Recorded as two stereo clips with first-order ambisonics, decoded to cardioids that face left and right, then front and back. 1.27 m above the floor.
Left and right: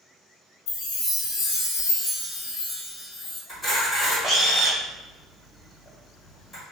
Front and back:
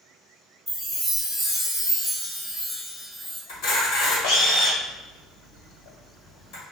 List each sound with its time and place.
0.7 s a chime: 85° left, 1.6 m
3.5 s a camera shutter: 20° left, 1.6 m